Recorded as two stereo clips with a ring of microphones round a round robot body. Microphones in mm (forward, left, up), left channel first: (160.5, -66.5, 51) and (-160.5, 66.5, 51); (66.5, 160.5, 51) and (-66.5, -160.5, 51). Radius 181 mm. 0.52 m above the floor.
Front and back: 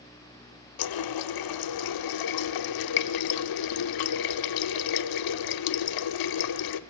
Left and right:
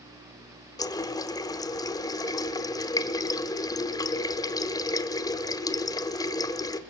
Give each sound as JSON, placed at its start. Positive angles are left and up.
{"t": 0.8, "sound": "a running tap", "azimuth_deg": -10, "distance_m": 1.0}